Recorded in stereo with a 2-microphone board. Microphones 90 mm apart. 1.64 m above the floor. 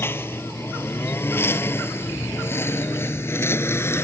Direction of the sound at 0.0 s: 25° left (ahead or behind).